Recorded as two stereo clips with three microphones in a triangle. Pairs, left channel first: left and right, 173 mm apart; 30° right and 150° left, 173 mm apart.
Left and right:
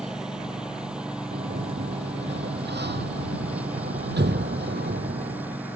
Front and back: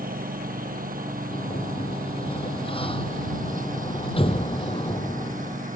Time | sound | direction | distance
0.0 | a lawn mower | 175° right | ?
1.3 | a sliding door | 90° right | ?